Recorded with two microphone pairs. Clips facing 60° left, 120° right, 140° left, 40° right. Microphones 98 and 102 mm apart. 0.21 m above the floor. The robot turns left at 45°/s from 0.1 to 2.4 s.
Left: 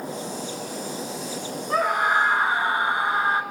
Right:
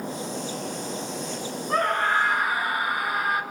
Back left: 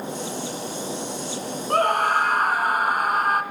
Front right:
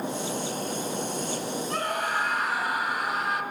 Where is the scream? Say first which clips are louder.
Left 2 dB, back left 11 dB; 145° left, 3 m; by 3.4 s 115° left, 3 m.